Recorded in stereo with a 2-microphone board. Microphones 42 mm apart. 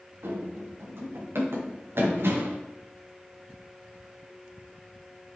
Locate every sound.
0.2 s running footsteps: 80° right, 5.5 m; by 2.6 s 65° right (ahead or behind), 4.5 m